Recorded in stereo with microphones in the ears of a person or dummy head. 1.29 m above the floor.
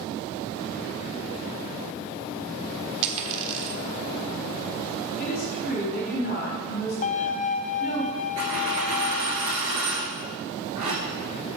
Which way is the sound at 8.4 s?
35° right (ahead or behind).